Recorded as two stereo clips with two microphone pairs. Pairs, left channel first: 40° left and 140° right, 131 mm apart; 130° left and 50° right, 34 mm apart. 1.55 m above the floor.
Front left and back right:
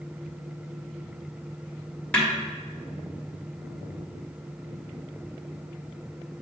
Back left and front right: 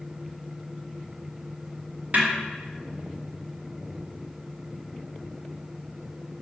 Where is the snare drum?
35° right, 1.3 m.